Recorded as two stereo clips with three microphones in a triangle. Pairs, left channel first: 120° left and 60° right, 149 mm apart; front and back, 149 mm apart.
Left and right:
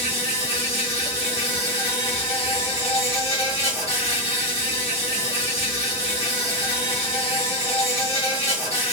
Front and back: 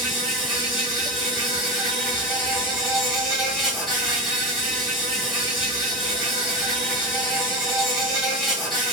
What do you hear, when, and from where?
0.0 s an insect: 90° left, 1.7 m